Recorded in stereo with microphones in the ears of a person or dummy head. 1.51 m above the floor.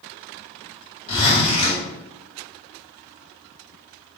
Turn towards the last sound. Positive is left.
turn(degrees=35)  # may be behind; listen again after turning